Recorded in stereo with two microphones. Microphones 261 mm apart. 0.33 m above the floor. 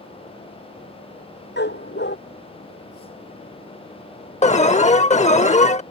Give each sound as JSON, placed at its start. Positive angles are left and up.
{"t": 1.6, "sound": "a dog barking", "side_deg": 40}
{"t": 4.4, "sound": "an alarm", "side_deg": 25}